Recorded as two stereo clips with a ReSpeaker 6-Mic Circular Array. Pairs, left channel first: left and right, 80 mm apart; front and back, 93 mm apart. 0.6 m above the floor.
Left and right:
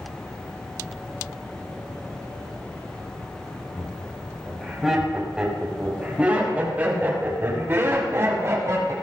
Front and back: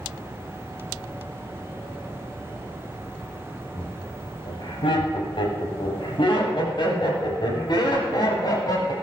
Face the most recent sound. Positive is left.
turn(degrees=-40)